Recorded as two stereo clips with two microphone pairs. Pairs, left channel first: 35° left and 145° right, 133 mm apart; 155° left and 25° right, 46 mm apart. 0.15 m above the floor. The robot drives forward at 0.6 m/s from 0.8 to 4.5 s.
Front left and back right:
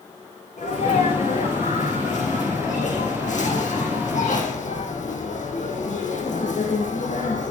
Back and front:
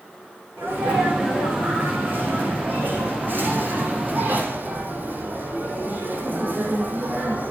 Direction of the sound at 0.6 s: 10° left.